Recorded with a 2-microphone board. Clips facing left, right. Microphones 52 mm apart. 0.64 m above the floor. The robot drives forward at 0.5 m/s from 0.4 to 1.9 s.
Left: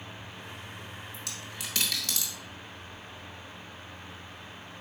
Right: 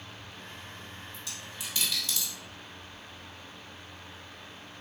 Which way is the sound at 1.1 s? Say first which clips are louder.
Left 2 dB; 70° left (ahead or behind).